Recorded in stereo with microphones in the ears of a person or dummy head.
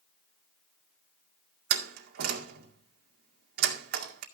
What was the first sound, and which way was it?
A door slam, 60° right (ahead or behind).